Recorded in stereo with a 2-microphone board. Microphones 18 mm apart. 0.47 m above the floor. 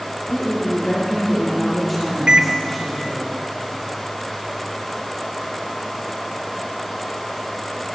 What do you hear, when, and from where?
0.3 s a woman speaking: 25° left (ahead or behind), 8 m; by 3.3 s 10° left (ahead or behind), 9 m
2.3 s a microwave: 55° right (ahead or behind), 1.6 m